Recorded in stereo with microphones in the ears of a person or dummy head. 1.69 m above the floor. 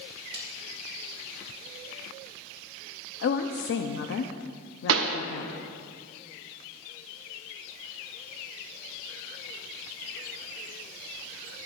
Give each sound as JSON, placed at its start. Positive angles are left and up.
{"t": 0.3, "sound": "a snare drum", "side_deg": -25, "distance_m": 1.7}
{"t": 3.2, "sound": "a woman speaking", "side_deg": 60, "distance_m": 0.6}
{"t": 4.9, "sound": "a pop", "side_deg": -75, "distance_m": 0.9}